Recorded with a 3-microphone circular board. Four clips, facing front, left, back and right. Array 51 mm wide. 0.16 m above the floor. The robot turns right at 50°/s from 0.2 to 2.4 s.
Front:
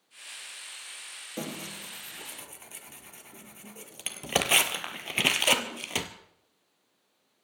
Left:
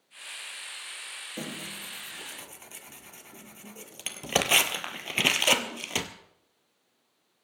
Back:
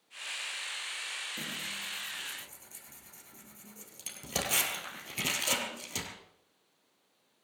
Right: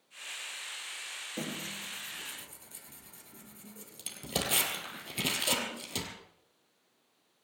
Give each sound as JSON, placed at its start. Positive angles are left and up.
{"t": 1.4, "sound": "tearing paper", "azimuth_deg": 0, "distance_m": 1.5}